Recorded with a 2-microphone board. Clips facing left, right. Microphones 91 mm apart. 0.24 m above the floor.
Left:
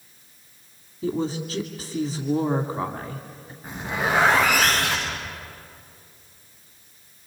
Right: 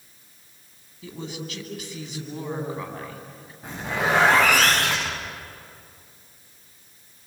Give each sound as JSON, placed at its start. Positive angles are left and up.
{"t": 1.0, "sound": "a woman speaking", "side_deg": 35, "distance_m": 2.0}
{"t": 3.6, "sound": "a zipper", "side_deg": -70, "distance_m": 9.5}